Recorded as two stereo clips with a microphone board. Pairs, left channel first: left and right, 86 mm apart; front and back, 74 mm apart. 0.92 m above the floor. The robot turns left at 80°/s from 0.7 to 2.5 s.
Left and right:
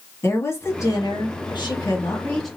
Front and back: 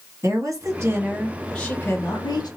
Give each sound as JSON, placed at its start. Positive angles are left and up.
{"t": 0.2, "sound": "a woman speaking", "azimuth_deg": 145, "distance_m": 1.4}